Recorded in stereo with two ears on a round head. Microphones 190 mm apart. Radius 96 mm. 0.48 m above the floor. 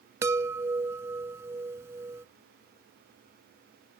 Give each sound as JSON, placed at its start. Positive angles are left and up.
{"t": 0.2, "sound": "a chime", "side_deg": -15}